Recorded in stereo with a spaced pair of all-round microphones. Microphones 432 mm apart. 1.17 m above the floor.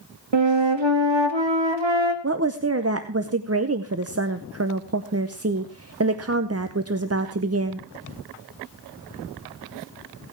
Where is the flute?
85° right, 1.5 m.